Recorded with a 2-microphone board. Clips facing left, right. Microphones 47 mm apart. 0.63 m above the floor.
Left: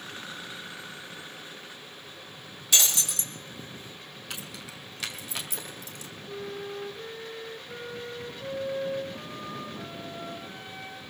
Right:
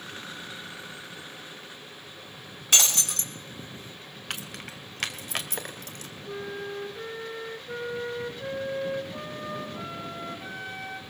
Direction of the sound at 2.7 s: 50° right (ahead or behind).